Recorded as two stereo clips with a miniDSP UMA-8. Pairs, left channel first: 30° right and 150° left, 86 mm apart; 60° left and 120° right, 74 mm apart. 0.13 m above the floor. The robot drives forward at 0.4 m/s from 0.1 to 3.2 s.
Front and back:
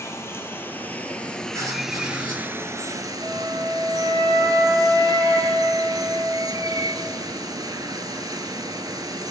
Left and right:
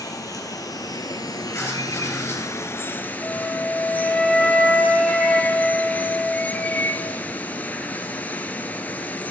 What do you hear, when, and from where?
0.0 s running water: 25° left, 1.1 m; by 9.3 s 125° left, 0.7 m
1.5 s writing: 110° left, 2.5 m; by 2.4 s 120° left, 2.5 m
3.2 s a flute: 150° left, 2 m